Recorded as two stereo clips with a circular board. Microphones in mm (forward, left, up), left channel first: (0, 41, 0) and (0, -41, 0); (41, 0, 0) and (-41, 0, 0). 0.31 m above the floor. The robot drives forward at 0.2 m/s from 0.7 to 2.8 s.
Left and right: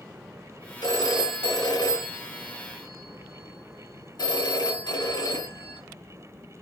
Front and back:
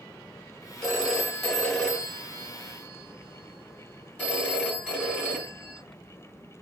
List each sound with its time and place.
0.8 s a phone ringing: 85° left, 1.5 m; by 5.8 s 105° left, 1.5 m